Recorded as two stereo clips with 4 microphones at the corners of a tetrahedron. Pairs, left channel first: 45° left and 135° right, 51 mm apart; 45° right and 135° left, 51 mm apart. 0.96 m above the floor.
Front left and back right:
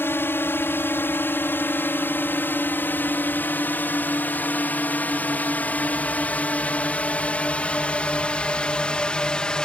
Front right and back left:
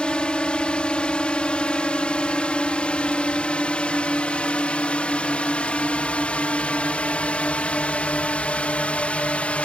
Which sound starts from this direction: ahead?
A drone, at 0.0 s.